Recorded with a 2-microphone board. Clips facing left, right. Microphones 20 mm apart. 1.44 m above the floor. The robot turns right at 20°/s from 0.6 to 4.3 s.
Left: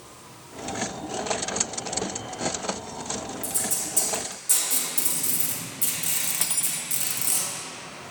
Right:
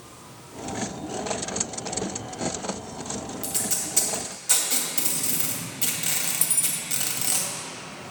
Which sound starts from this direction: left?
Cutlery clinking, at 6.4 s.